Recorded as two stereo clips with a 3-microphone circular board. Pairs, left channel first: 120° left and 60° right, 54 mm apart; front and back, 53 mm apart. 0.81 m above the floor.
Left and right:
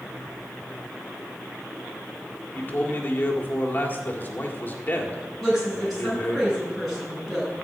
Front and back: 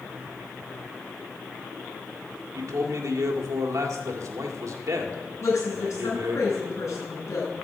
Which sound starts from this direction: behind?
A man speaking, at 2.5 s.